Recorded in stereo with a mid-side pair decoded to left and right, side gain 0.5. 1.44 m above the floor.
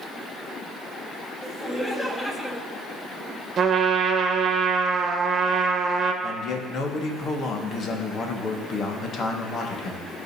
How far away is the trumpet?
About 1.2 m.